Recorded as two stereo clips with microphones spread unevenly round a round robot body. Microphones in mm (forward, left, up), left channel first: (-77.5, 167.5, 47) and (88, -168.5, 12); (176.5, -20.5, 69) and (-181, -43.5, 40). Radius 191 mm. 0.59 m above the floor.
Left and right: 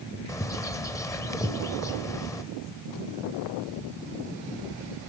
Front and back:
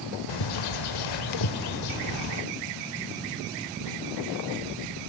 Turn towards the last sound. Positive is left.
turn(degrees=35)